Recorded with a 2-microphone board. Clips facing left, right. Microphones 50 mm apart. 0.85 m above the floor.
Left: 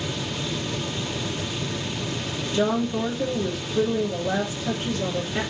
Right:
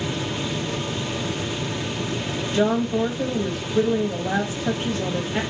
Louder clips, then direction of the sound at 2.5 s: Right 2 dB; 40° right (ahead or behind).